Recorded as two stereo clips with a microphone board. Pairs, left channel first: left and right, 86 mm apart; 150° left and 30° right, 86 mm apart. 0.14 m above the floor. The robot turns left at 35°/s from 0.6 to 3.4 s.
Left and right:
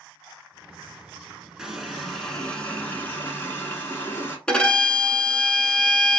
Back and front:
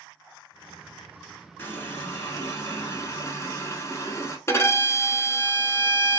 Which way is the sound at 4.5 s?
160° left.